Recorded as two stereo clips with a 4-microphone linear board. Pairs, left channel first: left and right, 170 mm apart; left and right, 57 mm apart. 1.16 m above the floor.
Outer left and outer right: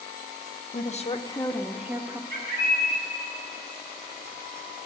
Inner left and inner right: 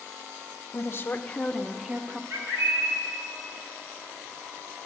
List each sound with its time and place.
0.7 s a woman speaking: 50° left (ahead or behind), 1.1 m; by 2.2 s 25° right (ahead or behind), 1.0 m
2.3 s a bird: 60° right (ahead or behind), 5 m